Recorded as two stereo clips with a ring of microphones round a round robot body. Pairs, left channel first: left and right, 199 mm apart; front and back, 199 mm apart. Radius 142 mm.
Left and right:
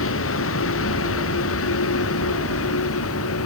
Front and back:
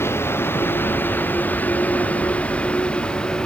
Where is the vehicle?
80° left; by 3.5 s 85° left.